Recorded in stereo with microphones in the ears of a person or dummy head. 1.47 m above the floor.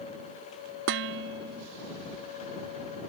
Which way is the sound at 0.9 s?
75° right (ahead or behind).